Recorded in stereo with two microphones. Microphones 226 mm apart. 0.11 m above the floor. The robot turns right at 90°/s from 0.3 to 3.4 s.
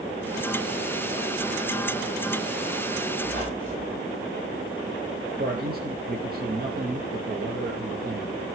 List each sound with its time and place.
3.2 s a squeak: 45° right (ahead or behind), 7 m; by 4.0 s 30° right (ahead or behind), 7 m
5.4 s a man speaking: 45° right (ahead or behind), 2.5 m